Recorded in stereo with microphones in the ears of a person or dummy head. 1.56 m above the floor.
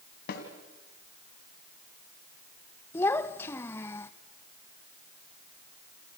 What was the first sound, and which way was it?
A snare drum, 55° left (ahead or behind).